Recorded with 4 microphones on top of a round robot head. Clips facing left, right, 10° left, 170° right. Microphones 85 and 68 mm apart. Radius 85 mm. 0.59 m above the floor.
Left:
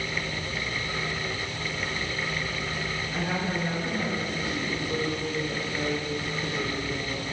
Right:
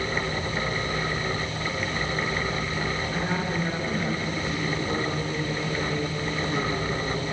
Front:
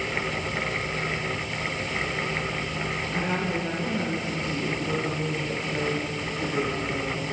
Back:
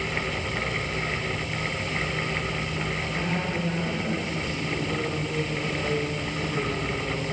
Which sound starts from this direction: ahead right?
A woman speaking, at 3.1 s.